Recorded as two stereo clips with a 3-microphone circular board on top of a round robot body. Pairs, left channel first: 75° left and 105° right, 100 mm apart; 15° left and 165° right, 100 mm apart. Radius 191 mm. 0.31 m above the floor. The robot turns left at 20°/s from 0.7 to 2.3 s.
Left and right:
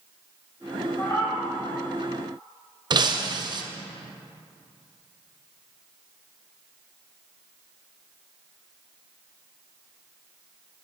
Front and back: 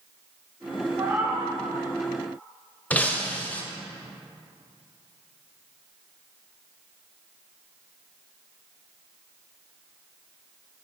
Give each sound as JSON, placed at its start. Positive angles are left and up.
{"t": 1.0, "sound": "a cat meowing", "azimuth_deg": 135, "distance_m": 3.0}
{"t": 2.9, "sound": "breaking glass", "azimuth_deg": -60, "distance_m": 0.8}